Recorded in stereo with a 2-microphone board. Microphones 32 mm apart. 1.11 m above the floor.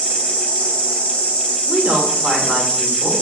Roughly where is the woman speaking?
Right.